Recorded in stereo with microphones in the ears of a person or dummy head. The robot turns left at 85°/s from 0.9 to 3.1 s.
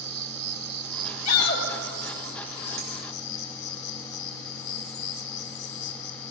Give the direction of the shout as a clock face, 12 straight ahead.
9 o'clock.